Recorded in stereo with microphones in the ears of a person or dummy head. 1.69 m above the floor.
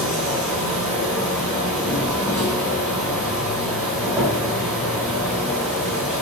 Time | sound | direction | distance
0.0 | an insect | 10° right (ahead or behind) | 1.0 m